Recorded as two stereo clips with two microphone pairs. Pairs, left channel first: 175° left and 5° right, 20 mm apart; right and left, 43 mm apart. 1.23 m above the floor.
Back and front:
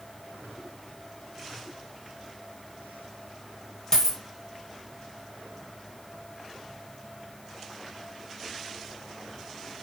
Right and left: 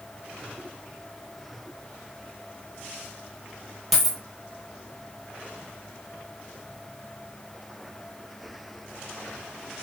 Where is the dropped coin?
165° left, 1.3 m.